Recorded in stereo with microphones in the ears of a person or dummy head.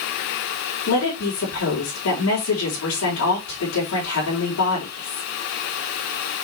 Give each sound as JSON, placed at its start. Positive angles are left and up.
{"t": 0.9, "sound": "a woman speaking", "side_deg": 80, "distance_m": 4.5}